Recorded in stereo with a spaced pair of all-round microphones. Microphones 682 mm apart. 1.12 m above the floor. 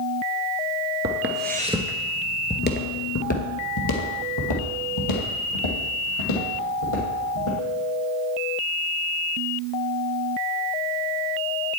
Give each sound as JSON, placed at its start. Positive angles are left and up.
{"t": 1.0, "sound": "footsteps", "side_deg": -25, "distance_m": 1.1}